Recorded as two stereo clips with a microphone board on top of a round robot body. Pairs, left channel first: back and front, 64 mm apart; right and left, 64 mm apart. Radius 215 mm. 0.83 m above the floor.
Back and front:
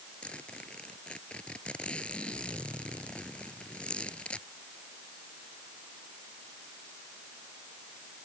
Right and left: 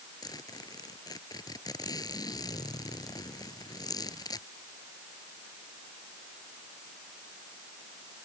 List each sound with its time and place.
0.2 s a zipper: 105° right